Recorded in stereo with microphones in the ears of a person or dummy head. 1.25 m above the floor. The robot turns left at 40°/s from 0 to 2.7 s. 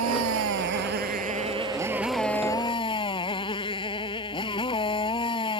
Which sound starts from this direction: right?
A motorcycle, at 0.0 s.